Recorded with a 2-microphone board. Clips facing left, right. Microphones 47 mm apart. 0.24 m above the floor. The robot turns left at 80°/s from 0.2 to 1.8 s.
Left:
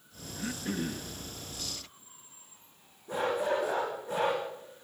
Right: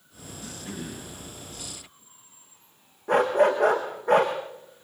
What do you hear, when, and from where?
0.3 s throat clearing: 55° left, 3 m; by 1.1 s 10° right, 3 m
3.1 s a dog barking: 65° right (ahead or behind), 6.5 m